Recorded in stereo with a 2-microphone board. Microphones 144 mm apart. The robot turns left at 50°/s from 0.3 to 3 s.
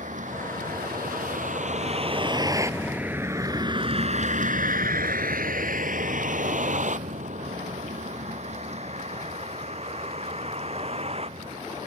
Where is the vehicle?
60° right (ahead or behind); by 11.9 s 45° right (ahead or behind).